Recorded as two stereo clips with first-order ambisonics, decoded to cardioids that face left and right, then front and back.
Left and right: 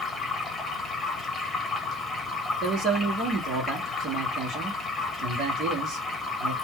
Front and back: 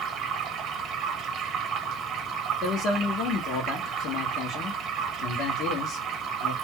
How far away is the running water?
About 0.8 m.